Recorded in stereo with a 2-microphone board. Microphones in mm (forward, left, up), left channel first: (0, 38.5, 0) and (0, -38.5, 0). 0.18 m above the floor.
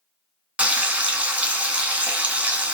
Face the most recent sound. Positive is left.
turn(degrees=-15)  # may be behind; listen again after turning